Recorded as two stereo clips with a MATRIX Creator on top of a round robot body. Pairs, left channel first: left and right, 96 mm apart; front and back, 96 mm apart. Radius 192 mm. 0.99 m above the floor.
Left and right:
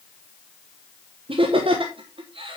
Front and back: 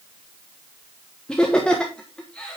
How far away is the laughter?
About 1.3 m.